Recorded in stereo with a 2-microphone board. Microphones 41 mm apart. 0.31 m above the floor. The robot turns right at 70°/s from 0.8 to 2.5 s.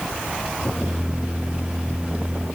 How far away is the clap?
I don't hear a clap.